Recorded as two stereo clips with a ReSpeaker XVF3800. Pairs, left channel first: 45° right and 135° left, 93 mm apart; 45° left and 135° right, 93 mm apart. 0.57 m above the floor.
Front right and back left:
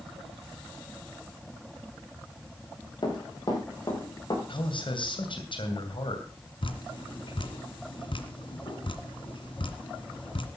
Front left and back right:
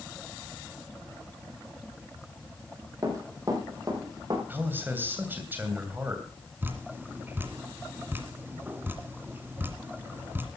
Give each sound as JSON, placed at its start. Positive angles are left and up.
{"t": 3.0, "sound": "running footsteps", "azimuth_deg": -80, "distance_m": 6.0}
{"t": 4.5, "sound": "a man speaking", "azimuth_deg": -65, "distance_m": 2.5}
{"t": 6.6, "sound": "dripping", "azimuth_deg": -65, "distance_m": 1.9}